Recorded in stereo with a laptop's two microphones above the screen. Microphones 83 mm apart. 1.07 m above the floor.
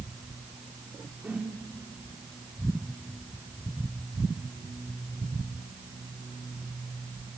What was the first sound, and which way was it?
A whoosh, 15° right (ahead or behind).